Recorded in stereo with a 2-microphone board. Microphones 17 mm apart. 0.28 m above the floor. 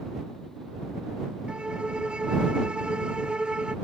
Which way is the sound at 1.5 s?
85° right.